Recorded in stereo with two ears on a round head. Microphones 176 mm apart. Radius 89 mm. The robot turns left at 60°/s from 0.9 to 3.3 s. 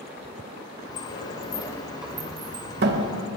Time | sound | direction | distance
1.0 | a sliding door | 55° left (ahead or behind) | 0.6 m